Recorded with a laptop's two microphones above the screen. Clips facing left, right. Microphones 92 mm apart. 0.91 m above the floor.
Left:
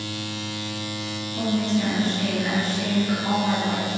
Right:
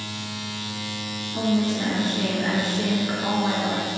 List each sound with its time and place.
1.3 s a woman speaking: 35° right (ahead or behind), 1.2 m